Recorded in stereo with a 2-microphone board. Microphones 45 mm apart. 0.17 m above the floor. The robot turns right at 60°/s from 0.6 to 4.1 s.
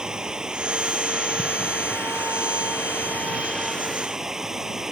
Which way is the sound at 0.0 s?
15° right.